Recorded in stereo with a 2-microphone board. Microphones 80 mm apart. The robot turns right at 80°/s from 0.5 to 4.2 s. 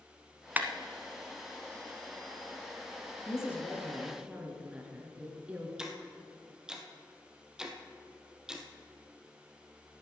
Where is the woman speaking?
125° left, 2 m; by 5.7 s 160° right, 2 m.